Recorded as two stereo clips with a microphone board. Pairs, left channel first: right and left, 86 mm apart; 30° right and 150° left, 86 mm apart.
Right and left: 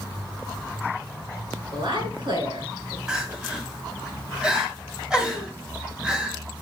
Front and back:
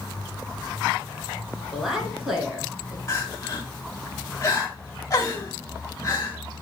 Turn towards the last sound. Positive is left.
turn(degrees=15)